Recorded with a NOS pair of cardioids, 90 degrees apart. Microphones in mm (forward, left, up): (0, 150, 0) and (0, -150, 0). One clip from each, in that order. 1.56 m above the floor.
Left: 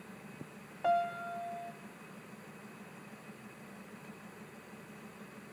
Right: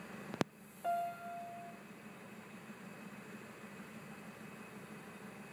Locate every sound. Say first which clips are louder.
0.8 s a piano: left 6 dB; 50° left, 1.1 m